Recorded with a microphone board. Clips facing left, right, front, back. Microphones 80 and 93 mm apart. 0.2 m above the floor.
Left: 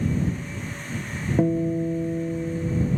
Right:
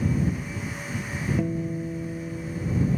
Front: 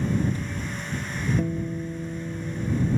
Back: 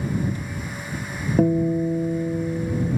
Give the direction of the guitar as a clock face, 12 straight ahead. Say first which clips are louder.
Left 11 dB, back 9 dB; 7 o'clock.